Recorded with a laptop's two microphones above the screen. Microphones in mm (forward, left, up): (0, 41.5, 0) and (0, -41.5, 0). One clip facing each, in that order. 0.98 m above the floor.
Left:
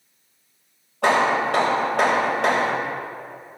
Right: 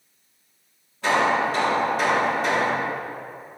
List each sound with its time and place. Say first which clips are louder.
1.0 s hammering: left 2 dB; 80° left, 3 m